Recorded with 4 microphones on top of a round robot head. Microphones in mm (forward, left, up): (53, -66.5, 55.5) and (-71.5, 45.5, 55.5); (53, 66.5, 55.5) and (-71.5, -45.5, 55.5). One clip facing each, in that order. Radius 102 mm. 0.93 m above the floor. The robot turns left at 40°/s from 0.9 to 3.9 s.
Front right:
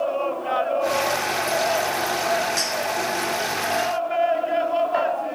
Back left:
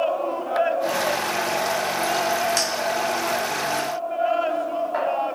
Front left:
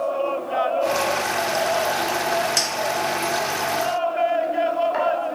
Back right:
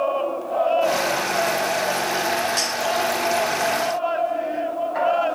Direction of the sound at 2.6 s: 80° left.